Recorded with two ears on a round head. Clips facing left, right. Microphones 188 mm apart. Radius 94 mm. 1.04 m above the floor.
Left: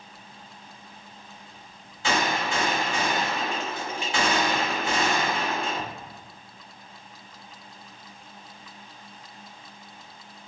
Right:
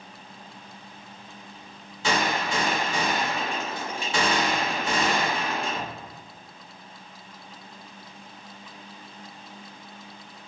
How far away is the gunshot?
About 1.4 m.